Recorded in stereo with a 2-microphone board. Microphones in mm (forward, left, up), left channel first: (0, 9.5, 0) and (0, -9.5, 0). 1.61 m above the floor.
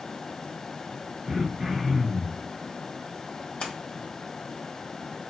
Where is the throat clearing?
50° right (ahead or behind), 2.5 m.